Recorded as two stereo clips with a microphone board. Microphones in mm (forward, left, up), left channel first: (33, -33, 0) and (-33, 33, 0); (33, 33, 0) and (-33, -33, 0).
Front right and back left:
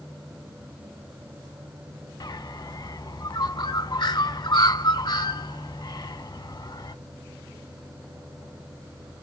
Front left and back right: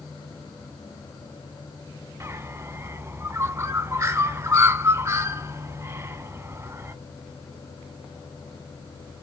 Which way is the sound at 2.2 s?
80° right.